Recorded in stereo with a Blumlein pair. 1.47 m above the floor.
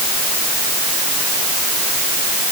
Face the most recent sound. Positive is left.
No sound to turn to.